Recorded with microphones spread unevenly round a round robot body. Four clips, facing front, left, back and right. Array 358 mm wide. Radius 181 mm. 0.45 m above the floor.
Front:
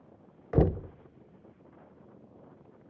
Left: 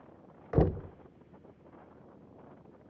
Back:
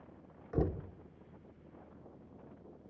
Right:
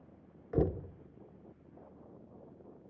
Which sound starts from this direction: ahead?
Knocking, at 0.5 s.